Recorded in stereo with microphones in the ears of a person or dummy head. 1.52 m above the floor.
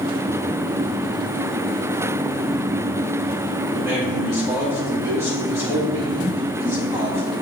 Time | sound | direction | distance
3.7 | a man speaking | 10° right (ahead or behind) | 2.5 m